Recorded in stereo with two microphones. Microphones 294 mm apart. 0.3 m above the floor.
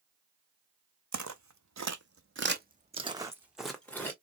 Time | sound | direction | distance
1.1 | footsteps | 75° right (ahead or behind) | 0.9 m